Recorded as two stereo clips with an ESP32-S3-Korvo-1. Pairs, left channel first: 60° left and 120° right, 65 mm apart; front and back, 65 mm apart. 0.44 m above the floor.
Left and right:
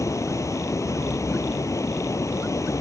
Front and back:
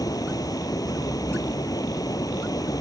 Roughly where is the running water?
Ahead.